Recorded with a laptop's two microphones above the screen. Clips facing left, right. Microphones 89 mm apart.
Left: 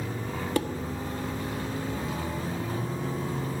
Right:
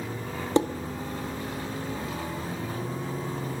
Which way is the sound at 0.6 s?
25° right (ahead or behind).